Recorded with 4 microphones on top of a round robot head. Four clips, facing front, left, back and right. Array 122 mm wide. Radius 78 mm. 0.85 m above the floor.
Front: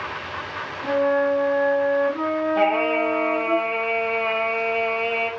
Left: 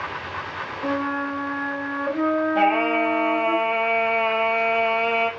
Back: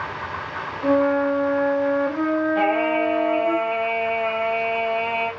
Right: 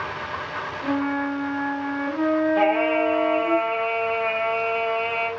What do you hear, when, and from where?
0.8 s a flute: 130° left, 1.4 m
2.5 s singing: 95° left, 0.9 m